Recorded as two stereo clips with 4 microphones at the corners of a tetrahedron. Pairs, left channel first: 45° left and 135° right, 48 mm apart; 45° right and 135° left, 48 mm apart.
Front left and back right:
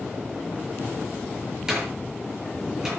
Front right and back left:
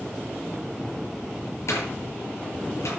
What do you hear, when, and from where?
1.7 s a door slam: 55° right, 7 m